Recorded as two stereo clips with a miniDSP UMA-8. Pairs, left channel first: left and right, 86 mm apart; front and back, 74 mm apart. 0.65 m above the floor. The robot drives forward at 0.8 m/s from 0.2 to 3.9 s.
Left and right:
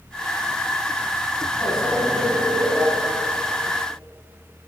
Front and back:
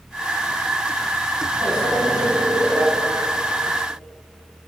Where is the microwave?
175° left, 4 m.